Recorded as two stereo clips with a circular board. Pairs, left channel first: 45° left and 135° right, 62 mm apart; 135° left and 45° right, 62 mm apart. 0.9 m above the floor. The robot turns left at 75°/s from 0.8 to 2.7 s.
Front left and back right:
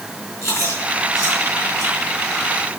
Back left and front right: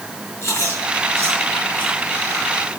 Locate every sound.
0.4 s chewing: 90° left, 7 m; by 2.5 s 35° right, 7 m